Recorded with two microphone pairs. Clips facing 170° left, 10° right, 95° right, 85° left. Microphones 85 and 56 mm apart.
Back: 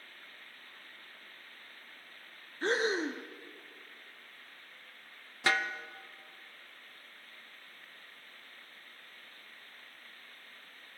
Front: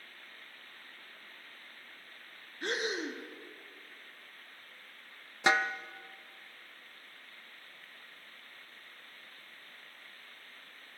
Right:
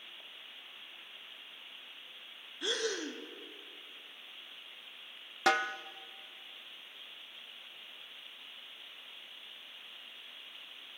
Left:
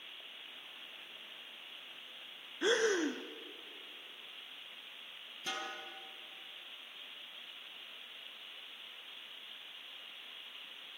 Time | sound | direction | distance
2.6 | breathing | 135° left | 0.5 m
5.5 | a snare drum | 85° right | 0.5 m